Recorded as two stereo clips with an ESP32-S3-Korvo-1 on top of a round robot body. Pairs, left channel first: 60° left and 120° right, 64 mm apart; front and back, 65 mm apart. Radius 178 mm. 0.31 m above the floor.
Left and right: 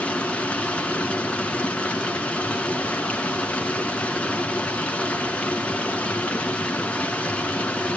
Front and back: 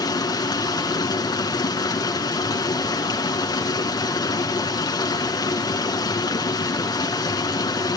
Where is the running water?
15° right, 1.9 m.